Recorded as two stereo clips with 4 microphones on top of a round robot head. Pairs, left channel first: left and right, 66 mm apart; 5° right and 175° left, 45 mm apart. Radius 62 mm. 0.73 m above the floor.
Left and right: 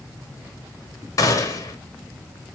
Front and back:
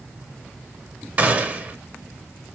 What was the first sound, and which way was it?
A gunshot, 125° left.